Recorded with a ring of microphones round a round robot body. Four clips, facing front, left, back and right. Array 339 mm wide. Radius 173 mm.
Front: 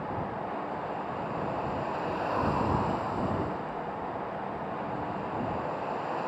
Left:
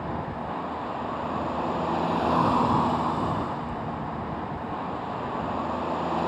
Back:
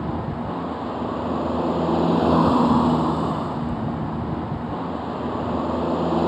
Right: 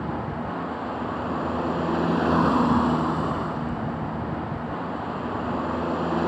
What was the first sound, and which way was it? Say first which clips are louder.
A vehicle: right 2 dB, back 6 dB; 160° right.